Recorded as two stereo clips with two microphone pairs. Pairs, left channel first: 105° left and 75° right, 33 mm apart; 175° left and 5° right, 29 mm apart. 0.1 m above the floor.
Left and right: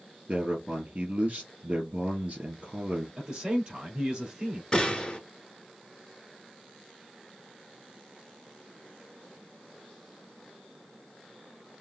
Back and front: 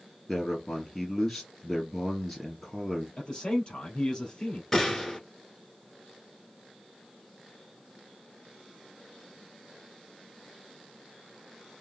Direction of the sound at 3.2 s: 135° right.